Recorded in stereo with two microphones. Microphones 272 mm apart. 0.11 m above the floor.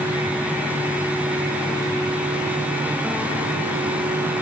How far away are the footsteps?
I don't hear footsteps.